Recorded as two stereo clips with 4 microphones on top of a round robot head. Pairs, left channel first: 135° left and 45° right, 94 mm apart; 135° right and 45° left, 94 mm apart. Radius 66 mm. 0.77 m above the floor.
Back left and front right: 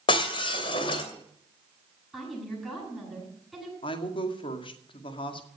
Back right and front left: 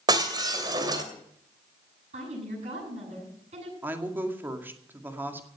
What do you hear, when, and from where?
0.1 s breaking glass: 95° left, 2.5 m
2.1 s a woman speaking: 45° left, 9.5 m
3.8 s a woman speaking: 115° left, 2 m